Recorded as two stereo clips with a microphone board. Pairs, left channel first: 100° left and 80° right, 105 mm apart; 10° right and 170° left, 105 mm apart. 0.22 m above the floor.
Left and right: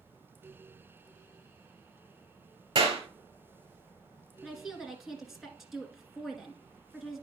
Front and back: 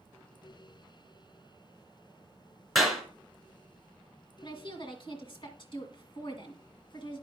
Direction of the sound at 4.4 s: 10° left.